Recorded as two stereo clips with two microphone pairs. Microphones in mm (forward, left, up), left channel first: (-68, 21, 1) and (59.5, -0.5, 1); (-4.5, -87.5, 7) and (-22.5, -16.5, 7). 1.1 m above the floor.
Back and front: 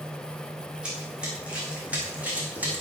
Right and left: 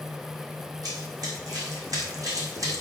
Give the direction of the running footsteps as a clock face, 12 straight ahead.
10 o'clock.